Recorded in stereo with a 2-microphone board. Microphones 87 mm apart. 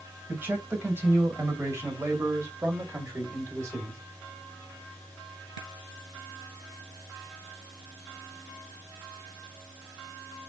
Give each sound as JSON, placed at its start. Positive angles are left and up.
{"t": 0.3, "sound": "a man speaking", "side_deg": -20, "distance_m": 2.5}